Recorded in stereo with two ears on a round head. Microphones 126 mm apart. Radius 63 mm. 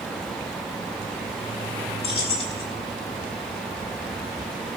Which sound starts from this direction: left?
Keys jangling, at 2.0 s.